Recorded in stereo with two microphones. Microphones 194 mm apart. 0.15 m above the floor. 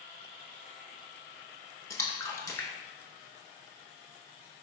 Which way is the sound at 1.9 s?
15° left (ahead or behind).